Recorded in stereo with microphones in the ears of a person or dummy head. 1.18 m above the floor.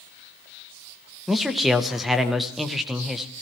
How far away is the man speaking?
About 0.9 m.